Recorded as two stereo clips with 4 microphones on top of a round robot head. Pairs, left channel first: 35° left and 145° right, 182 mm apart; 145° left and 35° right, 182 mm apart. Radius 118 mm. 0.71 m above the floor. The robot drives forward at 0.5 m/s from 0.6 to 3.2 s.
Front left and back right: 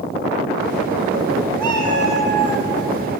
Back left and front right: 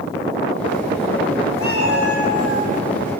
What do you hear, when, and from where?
1.6 s a cat meowing: 105° left, 3 m; by 2.7 s 110° left, 3 m